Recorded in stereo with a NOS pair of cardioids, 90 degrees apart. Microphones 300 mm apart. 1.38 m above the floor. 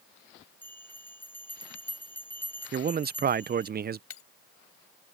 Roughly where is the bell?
Ahead.